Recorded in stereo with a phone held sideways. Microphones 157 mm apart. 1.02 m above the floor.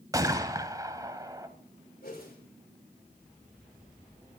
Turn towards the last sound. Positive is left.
turn(degrees=70)  # may be behind; listen again after turning